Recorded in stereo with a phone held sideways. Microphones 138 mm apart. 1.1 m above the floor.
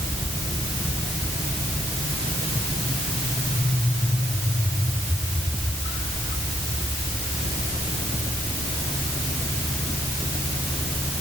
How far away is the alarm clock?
No alarm clock in this recording.